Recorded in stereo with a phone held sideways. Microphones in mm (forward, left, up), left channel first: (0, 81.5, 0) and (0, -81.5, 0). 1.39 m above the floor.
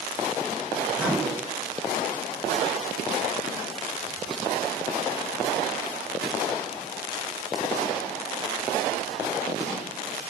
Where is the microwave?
10° right (ahead or behind), 4.5 m.